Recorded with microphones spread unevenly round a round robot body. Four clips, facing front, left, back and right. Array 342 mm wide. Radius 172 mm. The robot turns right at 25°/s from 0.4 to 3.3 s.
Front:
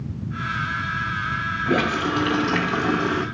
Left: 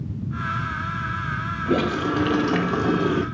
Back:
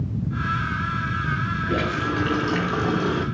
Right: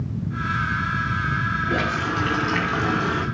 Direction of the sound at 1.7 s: 80° left.